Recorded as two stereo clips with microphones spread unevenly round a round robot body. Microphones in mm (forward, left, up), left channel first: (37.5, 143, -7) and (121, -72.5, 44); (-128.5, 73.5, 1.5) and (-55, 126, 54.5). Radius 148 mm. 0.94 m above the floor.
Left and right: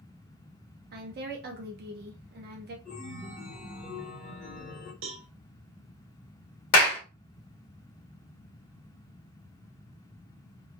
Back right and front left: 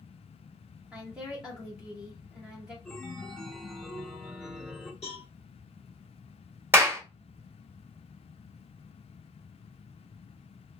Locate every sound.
0.9 s a woman speaking: 90° right, 0.6 m
2.9 s a chime: 150° left, 0.7 m
5.0 s a cowbell: 75° right, 0.6 m
6.7 s a clap: 100° left, 1.1 m